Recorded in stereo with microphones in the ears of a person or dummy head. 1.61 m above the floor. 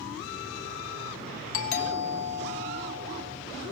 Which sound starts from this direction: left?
A doorbell, at 1.5 s.